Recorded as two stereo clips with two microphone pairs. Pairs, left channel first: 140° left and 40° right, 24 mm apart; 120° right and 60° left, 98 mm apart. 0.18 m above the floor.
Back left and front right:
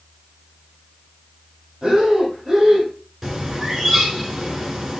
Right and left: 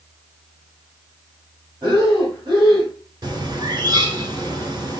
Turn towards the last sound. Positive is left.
turn(degrees=25)